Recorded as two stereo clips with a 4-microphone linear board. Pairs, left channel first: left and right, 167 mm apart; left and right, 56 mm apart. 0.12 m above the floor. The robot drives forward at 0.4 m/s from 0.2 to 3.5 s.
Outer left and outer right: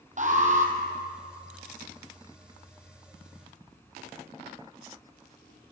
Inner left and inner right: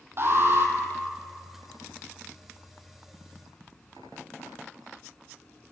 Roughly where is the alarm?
Right.